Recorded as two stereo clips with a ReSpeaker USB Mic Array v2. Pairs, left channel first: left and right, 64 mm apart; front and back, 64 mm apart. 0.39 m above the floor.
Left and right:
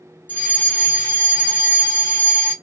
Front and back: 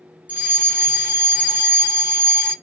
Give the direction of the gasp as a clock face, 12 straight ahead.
No gasp in this recording.